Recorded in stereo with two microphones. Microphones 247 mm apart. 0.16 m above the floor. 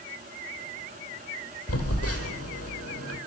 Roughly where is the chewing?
No chewing in this recording.